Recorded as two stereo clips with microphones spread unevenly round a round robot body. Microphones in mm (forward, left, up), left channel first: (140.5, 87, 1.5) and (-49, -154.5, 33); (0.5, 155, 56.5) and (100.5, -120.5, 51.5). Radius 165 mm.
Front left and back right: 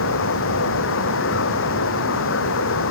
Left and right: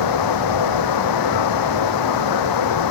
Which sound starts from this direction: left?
Running water, at 0.0 s.